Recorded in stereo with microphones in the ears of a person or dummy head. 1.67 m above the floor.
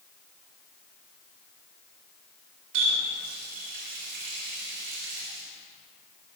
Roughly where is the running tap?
Right.